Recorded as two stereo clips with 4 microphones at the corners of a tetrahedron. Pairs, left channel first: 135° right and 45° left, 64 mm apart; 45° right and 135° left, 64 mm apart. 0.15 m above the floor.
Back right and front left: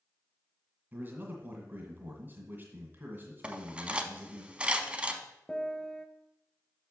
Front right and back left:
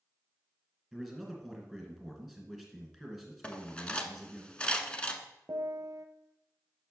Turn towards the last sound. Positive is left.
turn(degrees=150)